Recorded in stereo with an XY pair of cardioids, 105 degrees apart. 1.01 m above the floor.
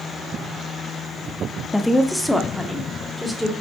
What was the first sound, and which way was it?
A woman speaking, 10° left.